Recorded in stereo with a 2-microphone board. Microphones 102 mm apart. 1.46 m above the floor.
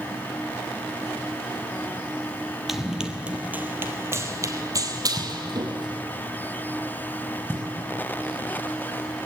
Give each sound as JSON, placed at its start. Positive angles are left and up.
{"t": 2.7, "sound": "running footsteps", "side_deg": -5, "distance_m": 1.8}
{"t": 5.2, "sound": "knocking", "side_deg": 20, "distance_m": 6.0}